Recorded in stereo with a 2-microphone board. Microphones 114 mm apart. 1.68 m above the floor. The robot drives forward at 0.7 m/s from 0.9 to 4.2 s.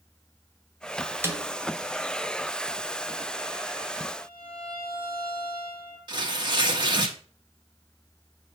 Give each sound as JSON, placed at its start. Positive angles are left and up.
{"t": 1.2, "sound": "a snare drum", "side_deg": -20, "distance_m": 1.5}
{"t": 4.2, "sound": "a violin", "side_deg": 50, "distance_m": 4.0}
{"t": 6.1, "sound": "tearing paper", "side_deg": -40, "distance_m": 1.8}